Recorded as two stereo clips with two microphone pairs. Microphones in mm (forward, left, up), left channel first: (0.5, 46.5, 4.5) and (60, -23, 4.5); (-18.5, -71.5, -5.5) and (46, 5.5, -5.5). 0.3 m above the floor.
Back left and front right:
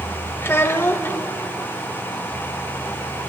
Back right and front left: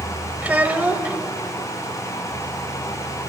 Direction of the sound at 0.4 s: 105° left.